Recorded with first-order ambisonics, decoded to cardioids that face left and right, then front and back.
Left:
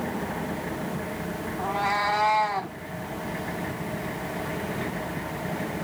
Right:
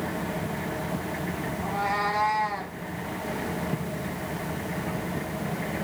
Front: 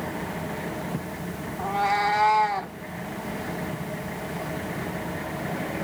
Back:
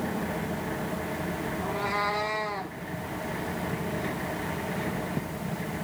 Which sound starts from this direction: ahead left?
A cat meowing, at 1.6 s.